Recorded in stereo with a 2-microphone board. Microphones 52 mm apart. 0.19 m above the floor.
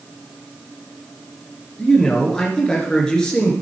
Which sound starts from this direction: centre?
A man speaking, at 1.8 s.